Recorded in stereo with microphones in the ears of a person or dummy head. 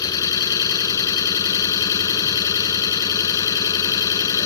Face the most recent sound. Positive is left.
turn(degrees=20)  # may be behind; listen again after turning